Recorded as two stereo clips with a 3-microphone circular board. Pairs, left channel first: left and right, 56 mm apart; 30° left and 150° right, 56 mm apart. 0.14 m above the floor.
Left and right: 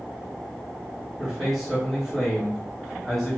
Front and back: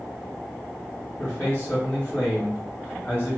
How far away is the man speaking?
About 1.9 m.